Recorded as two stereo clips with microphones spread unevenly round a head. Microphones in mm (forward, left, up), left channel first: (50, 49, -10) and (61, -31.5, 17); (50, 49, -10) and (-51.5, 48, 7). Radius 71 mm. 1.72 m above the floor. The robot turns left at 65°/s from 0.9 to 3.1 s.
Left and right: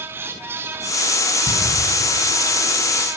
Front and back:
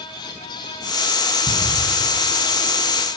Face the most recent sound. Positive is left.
turn(degrees=165)